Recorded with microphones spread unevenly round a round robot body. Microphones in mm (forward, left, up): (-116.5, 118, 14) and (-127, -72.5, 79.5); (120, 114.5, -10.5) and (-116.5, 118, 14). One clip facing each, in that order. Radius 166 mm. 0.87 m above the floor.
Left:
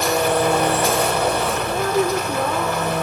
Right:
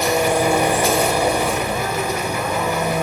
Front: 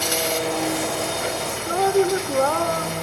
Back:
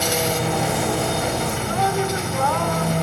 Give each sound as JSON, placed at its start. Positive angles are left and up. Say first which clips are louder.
{"t": 0.0, "sound": "an engine running", "louder": "right 1 dB, back 2 dB", "azimuth_deg": -170, "distance_m": 2.5}
{"t": 1.7, "sound": "a woman speaking", "louder": "left 3 dB, front 8 dB", "azimuth_deg": 45, "distance_m": 3.5}